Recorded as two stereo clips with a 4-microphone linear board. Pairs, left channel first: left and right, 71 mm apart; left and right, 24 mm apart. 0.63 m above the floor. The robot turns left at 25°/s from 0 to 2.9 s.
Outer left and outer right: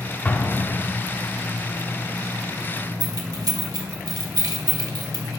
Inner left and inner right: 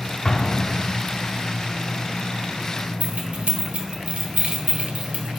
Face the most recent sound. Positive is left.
turn(degrees=-65)  # may be behind; listen again after turning